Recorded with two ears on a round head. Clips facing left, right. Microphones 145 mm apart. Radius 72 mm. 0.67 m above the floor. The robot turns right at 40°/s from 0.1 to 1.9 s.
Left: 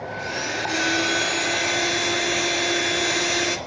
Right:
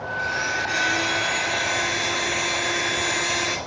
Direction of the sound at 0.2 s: 40° left.